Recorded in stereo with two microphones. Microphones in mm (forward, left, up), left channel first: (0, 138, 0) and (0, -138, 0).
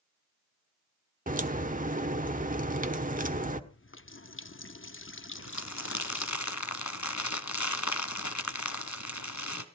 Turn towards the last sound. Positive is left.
turn(degrees=80)